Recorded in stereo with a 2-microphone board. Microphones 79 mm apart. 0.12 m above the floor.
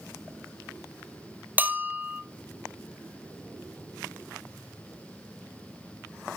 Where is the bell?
20° right (ahead or behind), 0.6 m.